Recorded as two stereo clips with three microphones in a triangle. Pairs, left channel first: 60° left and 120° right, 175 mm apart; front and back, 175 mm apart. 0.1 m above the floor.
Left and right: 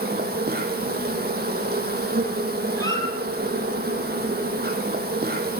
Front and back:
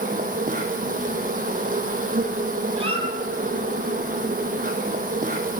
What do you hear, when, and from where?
0.0 s an insect: 145° right, 0.9 m
2.8 s a squeak: 125° left, 1.4 m